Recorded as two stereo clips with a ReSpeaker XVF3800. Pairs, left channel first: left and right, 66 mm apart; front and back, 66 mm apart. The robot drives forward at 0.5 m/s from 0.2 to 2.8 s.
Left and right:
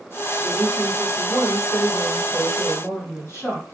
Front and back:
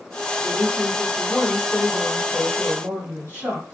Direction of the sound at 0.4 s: 75° left.